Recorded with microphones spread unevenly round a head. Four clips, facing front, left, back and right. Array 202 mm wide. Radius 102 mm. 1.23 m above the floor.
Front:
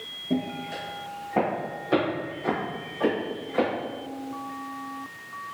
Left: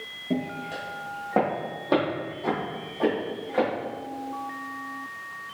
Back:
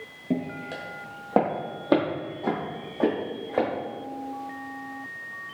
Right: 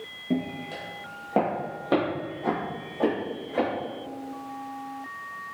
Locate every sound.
0.3 s footsteps: 160° right, 1.5 m; by 3.7 s 175° right, 3 m